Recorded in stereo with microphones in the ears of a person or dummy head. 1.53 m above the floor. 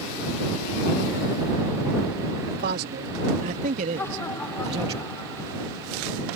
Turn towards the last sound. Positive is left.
turn(degrees=10)  # may be behind; listen again after turning